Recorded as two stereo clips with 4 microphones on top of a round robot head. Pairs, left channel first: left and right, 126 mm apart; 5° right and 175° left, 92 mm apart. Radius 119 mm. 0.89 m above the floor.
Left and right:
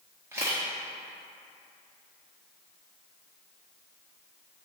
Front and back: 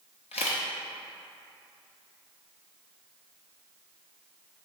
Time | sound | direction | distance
0.3 | a camera shutter | 15° right | 0.5 m